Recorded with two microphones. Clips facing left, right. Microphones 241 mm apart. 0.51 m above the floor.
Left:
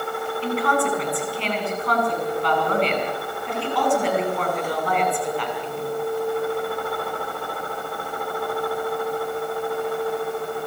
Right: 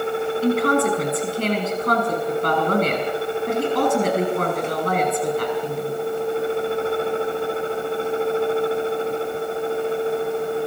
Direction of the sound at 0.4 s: 45° right (ahead or behind).